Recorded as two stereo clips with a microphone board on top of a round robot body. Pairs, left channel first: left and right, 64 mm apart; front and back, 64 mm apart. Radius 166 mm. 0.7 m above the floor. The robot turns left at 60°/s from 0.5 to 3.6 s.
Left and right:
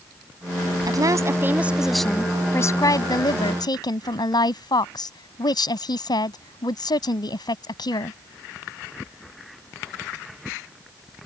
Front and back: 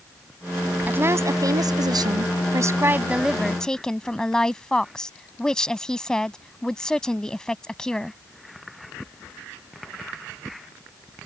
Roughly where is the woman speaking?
Behind right.